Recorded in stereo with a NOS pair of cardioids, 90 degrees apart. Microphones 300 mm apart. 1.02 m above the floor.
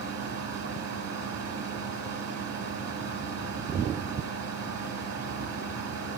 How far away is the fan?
About 1.3 m.